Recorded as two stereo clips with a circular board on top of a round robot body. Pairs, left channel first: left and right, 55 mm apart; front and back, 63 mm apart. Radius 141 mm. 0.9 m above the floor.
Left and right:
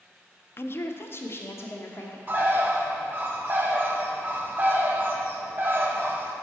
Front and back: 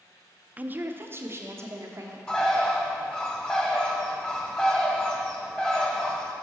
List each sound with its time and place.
0.6 s a woman speaking: 120° left, 0.5 m; by 2.2 s 135° left, 1.3 m
2.3 s a bird: 65° right, 1.0 m